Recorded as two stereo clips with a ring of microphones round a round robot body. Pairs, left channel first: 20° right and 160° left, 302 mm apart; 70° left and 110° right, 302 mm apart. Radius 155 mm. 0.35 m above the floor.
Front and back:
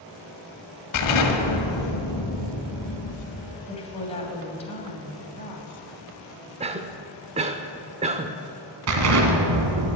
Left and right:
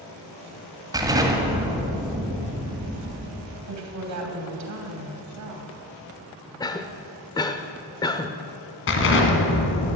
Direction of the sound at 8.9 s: 120° left.